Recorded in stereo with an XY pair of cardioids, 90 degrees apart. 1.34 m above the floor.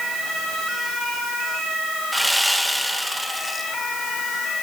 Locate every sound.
2.1 s sawing: straight ahead, 1.8 m